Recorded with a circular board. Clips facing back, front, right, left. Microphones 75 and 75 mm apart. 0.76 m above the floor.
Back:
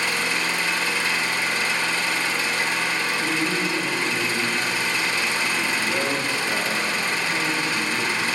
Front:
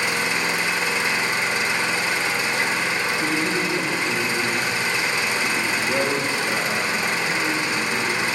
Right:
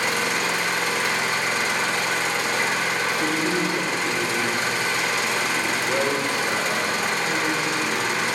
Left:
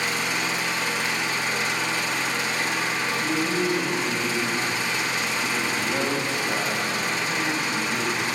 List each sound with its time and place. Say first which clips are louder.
0.0 s an engine running: front 1 dB, right 3 dB; 70° right, 0.8 m
3.1 s a man speaking: front 1 dB, right 2 dB; 70° right, 3 m